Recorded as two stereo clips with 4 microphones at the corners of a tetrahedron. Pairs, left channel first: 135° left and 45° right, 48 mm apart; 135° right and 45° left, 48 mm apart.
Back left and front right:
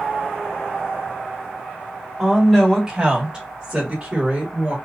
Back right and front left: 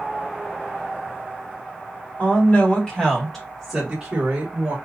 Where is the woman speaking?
125° right, 1.4 m; by 4.8 s 5° left, 1.5 m.